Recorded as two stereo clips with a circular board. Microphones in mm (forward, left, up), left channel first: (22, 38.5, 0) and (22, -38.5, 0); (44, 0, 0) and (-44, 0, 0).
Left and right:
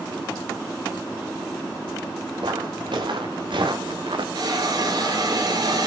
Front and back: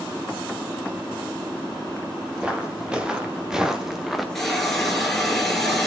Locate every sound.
2.4 s footsteps: 100° right, 3.5 m; by 4.2 s 90° right, 1.7 m
4.3 s a hiss: 85° right, 3.5 m